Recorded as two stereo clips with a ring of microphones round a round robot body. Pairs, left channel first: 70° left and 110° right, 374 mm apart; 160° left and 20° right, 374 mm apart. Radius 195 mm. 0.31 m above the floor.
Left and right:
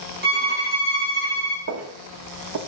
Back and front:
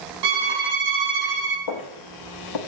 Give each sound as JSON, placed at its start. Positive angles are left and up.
{"t": 0.2, "sound": "a violin", "azimuth_deg": -45, "distance_m": 5.0}
{"t": 1.7, "sound": "footsteps", "azimuth_deg": -165, "distance_m": 1.3}